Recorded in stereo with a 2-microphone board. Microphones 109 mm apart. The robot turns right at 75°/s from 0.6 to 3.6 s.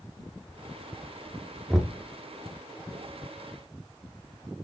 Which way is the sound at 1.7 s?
5° right (ahead or behind).